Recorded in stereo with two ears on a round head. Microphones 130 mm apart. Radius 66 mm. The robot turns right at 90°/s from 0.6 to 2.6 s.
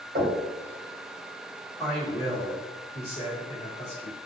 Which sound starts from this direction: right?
Knocking, at 0.1 s.